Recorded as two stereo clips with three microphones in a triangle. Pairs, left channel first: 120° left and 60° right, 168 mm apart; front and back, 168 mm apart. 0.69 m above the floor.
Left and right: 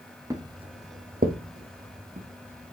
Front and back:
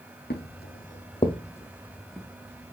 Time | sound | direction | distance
0.3 | footsteps | 10° left | 1.7 m